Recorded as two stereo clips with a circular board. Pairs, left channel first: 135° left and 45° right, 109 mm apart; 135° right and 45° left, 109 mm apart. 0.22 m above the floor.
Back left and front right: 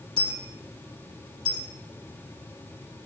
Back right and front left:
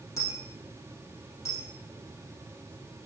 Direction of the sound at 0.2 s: 75° right.